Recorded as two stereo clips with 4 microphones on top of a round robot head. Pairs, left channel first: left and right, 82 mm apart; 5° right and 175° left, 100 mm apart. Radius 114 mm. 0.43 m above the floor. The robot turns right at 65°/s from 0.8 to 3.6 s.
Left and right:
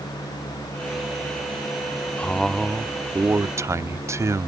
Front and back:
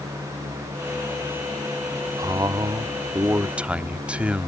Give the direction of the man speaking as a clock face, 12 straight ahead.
7 o'clock.